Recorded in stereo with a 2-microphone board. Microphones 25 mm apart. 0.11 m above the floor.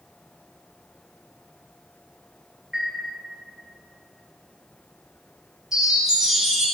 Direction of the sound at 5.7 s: 15° right (ahead or behind).